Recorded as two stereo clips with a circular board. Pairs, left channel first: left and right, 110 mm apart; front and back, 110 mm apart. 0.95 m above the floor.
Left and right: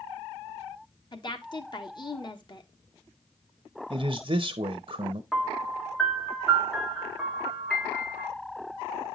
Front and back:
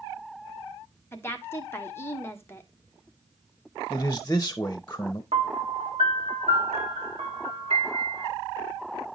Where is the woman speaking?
60° left, 1.1 m.